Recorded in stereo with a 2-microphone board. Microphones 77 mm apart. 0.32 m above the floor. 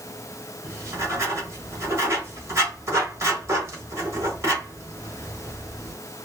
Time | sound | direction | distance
0.6 | writing | 35° right (ahead or behind) | 1.3 m